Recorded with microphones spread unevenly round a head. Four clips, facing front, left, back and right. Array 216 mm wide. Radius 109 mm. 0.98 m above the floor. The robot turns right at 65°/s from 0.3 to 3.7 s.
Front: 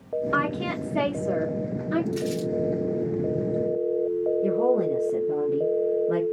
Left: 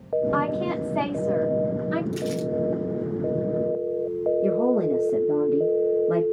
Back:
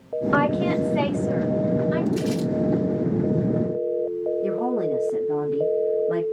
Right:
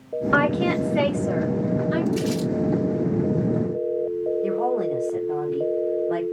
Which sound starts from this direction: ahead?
Crumpling, at 2.1 s.